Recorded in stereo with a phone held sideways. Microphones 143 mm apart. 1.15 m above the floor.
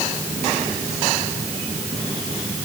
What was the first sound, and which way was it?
Only background noise.